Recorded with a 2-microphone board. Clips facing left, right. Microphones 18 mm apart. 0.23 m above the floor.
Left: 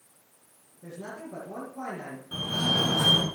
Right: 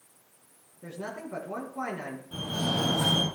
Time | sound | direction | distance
0.8 | a man speaking | 55° right (ahead or behind) | 3 m
2.3 | a fire alarm | 45° left (ahead or behind) | 4.5 m